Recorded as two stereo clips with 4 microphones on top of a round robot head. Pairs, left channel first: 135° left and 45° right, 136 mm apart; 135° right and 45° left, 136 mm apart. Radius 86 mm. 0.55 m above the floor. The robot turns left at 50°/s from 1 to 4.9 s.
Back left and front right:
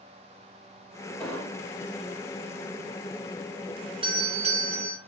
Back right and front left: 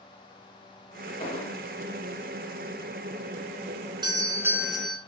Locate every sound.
1.2 s an explosion: 145° right, 2.5 m; by 1.7 s 170° right, 2.5 m
4.0 s a doorbell: 5° right, 2.5 m; by 5.0 s 50° right, 2.5 m